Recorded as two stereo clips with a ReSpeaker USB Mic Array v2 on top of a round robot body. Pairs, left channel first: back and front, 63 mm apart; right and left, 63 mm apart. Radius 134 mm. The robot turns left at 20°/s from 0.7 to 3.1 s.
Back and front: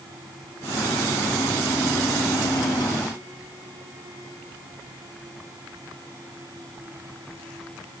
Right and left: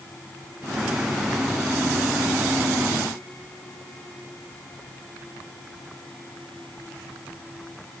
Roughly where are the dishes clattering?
I don't hear dishes clattering.